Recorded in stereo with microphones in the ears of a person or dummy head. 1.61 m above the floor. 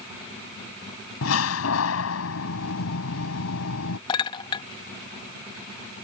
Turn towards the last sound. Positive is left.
turn(degrees=30)  # may be behind; listen again after turning